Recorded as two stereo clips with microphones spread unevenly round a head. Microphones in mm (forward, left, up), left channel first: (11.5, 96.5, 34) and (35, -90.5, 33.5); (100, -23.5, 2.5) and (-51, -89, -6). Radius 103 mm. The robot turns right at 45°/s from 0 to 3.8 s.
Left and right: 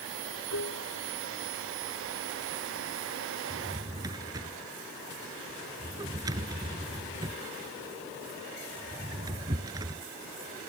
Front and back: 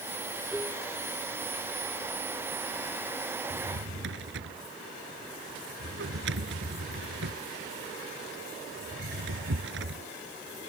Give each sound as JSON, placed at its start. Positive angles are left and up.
{"t": 0.5, "sound": "dishes clattering", "azimuth_deg": 115}
{"t": 3.5, "sound": "a drawer", "azimuth_deg": -170}